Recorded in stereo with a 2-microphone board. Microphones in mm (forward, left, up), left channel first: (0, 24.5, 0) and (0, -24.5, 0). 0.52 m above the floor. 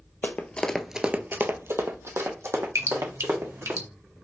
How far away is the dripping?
About 1.1 m.